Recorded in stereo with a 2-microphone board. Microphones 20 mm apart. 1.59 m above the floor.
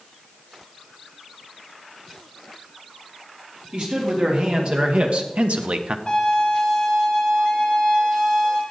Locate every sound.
3.7 s a man speaking: 50° right (ahead or behind), 3.5 m; by 6.0 s 55° right (ahead or behind), 0.9 m
6.1 s a violin: 25° left (ahead or behind), 6 m